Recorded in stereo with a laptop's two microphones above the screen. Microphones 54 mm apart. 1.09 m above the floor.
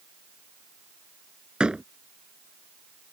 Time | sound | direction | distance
1.6 | a door slam | 20° right (ahead or behind) | ?